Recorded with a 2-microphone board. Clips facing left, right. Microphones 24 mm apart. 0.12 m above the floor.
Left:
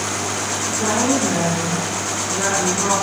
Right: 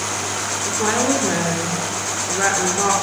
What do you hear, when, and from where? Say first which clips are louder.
0.7 s a woman speaking: even; 35° right (ahead or behind), 1.8 m